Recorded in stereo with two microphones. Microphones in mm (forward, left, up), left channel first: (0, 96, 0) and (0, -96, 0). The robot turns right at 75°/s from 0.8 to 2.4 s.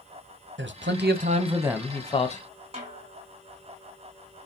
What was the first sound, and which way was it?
A man speaking, 75° right.